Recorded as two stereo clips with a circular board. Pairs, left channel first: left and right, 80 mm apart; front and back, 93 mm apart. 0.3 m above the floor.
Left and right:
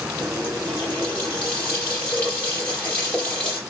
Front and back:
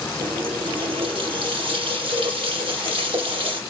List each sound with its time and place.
0.2 s a running tap: 160° left, 5.5 m